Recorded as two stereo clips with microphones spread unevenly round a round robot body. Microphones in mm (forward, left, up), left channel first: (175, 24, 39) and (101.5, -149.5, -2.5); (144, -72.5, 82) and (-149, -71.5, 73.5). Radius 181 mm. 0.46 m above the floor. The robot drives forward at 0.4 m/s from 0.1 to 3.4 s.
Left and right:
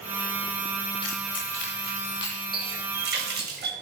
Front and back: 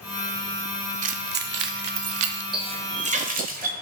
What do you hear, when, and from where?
1.0 s keys jangling: 120° left, 0.7 m; by 2.4 s 150° left, 1.1 m
2.5 s a running tap: 110° right, 1.4 m; by 3.7 s 120° right, 1.6 m